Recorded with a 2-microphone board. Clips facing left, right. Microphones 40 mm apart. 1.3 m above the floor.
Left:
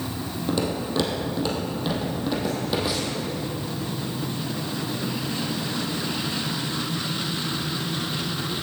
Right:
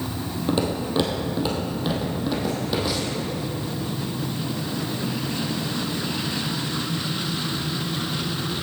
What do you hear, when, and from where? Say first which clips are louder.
0.5 s footsteps: right 2 dB; 25° right (ahead or behind), 2 m; by 3.2 s 10° left (ahead or behind), 2.5 m